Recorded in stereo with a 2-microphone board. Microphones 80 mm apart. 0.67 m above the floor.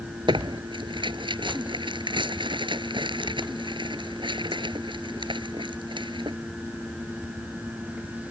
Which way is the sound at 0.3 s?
90° right.